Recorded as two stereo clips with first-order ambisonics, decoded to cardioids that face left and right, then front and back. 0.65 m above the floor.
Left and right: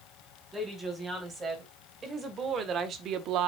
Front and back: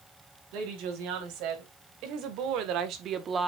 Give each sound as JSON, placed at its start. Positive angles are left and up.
{"t": 0.5, "sound": "a woman speaking", "azimuth_deg": -165, "distance_m": 3.5}